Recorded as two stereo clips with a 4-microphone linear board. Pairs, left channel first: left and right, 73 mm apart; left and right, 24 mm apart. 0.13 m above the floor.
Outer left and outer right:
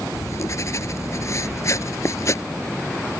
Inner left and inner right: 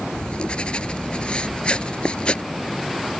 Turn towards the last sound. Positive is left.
turn(degrees=45)  # may be behind; listen again after turning